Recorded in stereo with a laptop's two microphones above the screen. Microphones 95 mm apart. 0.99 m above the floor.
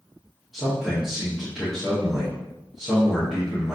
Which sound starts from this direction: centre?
A man speaking, at 0.5 s.